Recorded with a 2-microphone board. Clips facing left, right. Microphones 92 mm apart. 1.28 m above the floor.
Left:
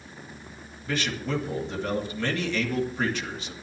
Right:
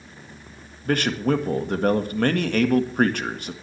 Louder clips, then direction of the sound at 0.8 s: Right 8 dB; 55° right (ahead or behind).